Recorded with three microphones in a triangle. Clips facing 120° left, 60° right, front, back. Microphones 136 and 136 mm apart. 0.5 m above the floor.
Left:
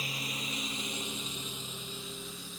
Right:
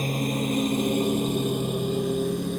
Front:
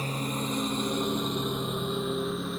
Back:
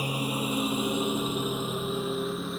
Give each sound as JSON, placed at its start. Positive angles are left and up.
{"t": 0.0, "sound": "a lawn mower", "azimuth_deg": -100}